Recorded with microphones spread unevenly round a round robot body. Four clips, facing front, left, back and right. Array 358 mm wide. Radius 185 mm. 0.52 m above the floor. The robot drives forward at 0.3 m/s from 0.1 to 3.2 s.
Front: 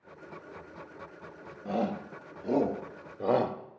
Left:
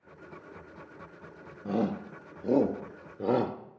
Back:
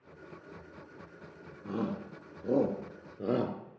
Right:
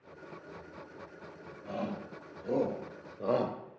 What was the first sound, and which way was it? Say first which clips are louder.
A shout: left 7 dB, front 4 dB; 100° left.